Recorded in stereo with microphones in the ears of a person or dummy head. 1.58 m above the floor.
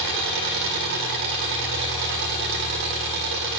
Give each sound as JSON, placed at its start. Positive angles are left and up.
{"t": 0.0, "sound": "an engine running", "side_deg": -60, "distance_m": 2.0}